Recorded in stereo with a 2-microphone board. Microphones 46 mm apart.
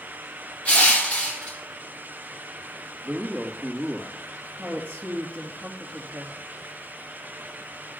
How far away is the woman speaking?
About 3 m.